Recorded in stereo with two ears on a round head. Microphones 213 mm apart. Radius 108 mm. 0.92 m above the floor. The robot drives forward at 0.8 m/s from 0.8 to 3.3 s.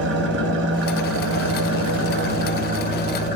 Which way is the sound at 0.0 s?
50° right (ahead or behind).